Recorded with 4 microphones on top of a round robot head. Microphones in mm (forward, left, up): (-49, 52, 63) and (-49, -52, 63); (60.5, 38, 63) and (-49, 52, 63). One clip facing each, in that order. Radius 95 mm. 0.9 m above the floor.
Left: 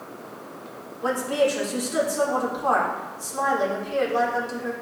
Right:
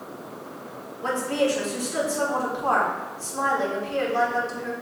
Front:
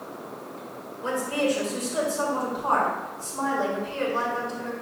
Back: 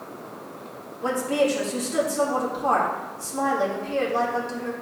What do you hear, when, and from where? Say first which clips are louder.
1.0 s a woman speaking: left 1 dB, back 3 dB; 165° left, 3 m